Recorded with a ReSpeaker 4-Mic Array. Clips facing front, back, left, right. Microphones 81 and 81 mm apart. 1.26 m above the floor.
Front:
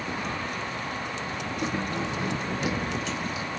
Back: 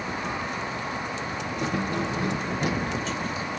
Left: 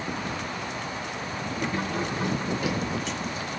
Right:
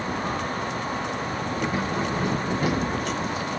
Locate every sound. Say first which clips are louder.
1.6 s keys jangling: back 2 dB, right 2 dB; 170° right, 0.8 m; by 3.6 s 120° right, 1.6 m